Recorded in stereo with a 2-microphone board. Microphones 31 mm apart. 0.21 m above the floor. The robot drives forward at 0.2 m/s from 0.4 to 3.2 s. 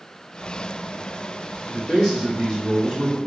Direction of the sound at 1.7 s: 10° left (ahead or behind).